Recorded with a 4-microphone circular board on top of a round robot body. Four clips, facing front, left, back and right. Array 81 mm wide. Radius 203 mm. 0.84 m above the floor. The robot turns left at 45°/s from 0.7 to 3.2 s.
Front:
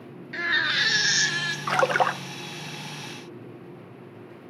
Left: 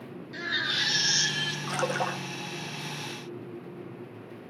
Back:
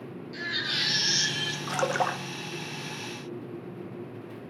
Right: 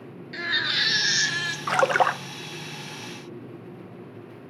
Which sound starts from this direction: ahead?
A baby crying, at 0.3 s.